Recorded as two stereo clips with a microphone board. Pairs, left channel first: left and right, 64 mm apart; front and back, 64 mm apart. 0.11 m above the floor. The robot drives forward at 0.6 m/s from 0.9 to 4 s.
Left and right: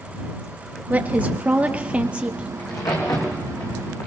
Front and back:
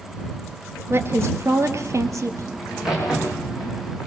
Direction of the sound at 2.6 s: 95° left.